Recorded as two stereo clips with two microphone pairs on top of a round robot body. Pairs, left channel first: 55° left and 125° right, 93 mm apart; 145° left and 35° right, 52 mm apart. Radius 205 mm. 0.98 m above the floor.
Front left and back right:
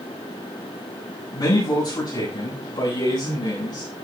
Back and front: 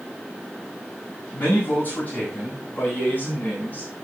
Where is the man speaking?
95° left, 8 m; by 3.9 s 90° left, 10 m.